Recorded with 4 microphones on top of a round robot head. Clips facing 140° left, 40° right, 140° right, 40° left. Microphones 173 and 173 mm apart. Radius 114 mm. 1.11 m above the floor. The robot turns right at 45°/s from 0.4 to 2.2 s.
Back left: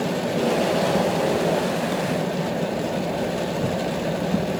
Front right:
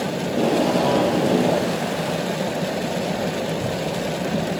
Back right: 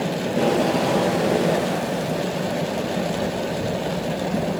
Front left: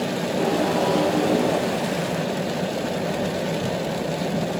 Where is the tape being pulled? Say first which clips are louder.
Front right 3 dB, back right 3 dB; 85° right, 4.5 m; by 1.8 s 20° right, 4.5 m.